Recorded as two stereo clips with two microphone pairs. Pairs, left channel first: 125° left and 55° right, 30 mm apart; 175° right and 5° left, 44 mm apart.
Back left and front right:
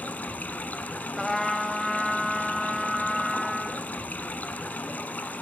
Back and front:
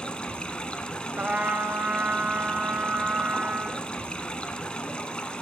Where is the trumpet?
45° left, 0.7 m.